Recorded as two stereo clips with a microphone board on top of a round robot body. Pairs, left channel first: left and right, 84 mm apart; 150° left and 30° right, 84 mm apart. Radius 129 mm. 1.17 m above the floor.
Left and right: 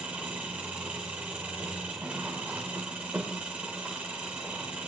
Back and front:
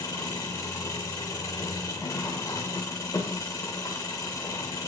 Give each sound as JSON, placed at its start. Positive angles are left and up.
{"t": 0.0, "sound": "an engine running", "azimuth_deg": -160, "distance_m": 0.9}